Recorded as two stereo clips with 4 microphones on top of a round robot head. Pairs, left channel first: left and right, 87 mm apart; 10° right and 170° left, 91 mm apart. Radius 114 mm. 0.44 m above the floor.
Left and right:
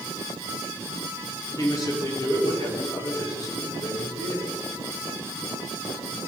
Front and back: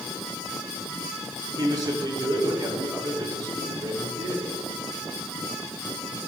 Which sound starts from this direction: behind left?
A man speaking, at 1.6 s.